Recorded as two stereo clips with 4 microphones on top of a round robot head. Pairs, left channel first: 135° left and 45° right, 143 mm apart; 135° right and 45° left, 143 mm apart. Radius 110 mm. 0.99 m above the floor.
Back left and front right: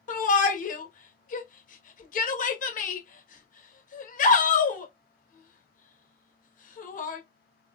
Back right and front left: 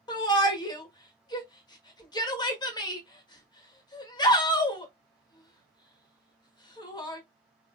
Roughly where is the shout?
Behind.